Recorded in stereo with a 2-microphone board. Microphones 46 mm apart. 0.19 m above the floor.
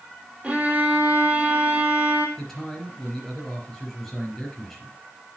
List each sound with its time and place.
0.4 s a violin: 30° right (ahead or behind), 1.8 m
2.4 s a man speaking: 5° left (ahead or behind), 4.5 m